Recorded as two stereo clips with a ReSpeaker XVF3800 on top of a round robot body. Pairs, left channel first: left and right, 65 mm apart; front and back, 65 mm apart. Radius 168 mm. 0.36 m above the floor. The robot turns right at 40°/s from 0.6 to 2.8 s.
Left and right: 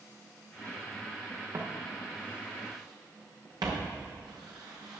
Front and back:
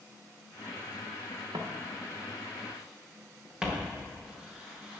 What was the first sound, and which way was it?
Footsteps, 150° right.